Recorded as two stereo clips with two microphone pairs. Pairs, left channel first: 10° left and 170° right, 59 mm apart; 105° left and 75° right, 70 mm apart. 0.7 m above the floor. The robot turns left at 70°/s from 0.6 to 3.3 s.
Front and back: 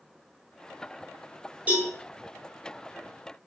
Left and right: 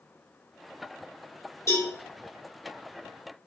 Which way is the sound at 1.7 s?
135° left.